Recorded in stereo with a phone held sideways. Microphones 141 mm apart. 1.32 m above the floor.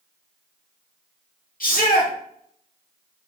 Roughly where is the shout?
Left.